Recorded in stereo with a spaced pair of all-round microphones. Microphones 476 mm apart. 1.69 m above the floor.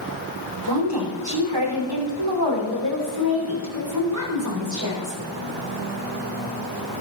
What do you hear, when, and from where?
0.7 s a woman speaking: 55° right (ahead or behind), 5.5 m; by 5.2 s 75° right (ahead or behind), 7 m